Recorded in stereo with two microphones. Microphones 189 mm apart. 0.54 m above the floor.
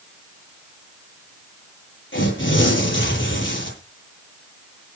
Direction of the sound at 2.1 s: 85° left.